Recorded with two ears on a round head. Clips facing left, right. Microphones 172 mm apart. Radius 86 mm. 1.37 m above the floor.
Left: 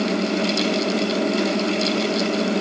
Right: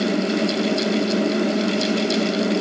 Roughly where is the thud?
No thud in this recording.